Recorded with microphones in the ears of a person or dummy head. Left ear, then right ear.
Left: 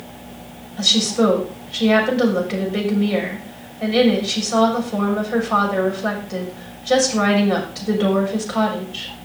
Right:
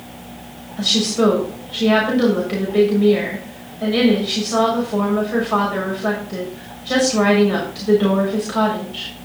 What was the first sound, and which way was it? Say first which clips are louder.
A woman speaking: left 1 dB; 10° left (ahead or behind).